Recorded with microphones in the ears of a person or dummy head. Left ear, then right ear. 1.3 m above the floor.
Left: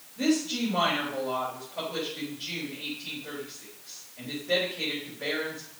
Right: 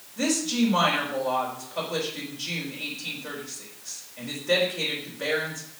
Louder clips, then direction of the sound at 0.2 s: Right 2 dB; 65° right (ahead or behind).